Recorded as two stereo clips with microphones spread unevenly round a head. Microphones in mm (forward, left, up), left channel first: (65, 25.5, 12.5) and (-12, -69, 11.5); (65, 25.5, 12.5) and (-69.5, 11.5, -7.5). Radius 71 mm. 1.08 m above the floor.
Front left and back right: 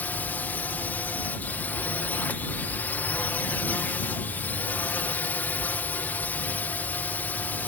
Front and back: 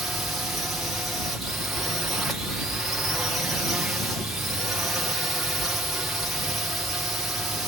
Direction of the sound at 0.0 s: 115° left.